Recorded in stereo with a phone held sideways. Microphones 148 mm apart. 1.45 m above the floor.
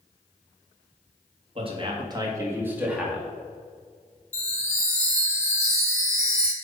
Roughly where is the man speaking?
Right.